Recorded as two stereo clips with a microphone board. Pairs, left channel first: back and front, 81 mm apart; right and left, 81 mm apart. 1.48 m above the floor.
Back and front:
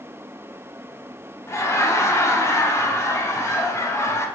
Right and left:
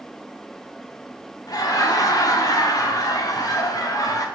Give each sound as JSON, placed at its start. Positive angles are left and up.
{"t": 1.5, "sound": "laughter", "azimuth_deg": -130, "distance_m": 0.8}